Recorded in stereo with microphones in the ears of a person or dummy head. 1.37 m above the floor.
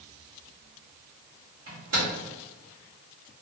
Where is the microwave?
80° right, 1.4 m.